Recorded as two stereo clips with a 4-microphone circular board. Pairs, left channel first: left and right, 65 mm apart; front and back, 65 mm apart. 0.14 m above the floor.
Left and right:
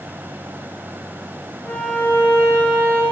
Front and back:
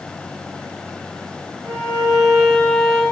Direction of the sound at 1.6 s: 145° left.